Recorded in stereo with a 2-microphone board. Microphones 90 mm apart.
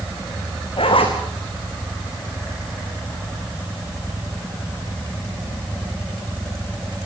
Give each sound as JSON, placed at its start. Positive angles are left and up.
{"t": 0.8, "sound": "a zipper", "side_deg": 80, "distance_m": 4.5}